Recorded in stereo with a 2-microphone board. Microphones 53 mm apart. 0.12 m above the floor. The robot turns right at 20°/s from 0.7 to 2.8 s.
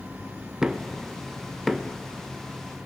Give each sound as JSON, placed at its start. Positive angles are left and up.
{"t": 0.6, "sound": "knocking", "side_deg": -10, "distance_m": 1.0}